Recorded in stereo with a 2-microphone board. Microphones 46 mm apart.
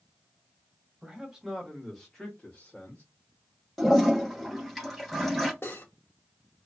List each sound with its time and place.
1.0 s a man speaking: 20° right (ahead or behind), 1.2 m; by 3.0 s 40° left (ahead or behind), 1.3 m
3.8 s a toilet flushing: 5° left (ahead or behind), 1.1 m
5.6 s cutlery clinking: 65° left (ahead or behind), 1.2 m